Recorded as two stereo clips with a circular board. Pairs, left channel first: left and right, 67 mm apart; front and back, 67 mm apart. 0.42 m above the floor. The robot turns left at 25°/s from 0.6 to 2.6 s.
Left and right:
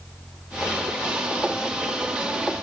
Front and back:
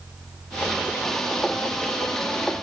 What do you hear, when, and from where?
Only background noise.